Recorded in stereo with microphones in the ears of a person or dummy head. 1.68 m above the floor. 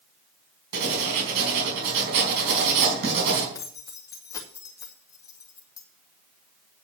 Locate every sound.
0.7 s writing: 60° right (ahead or behind), 4.5 m
3.5 s keys jangling: 20° left (ahead or behind), 1.2 m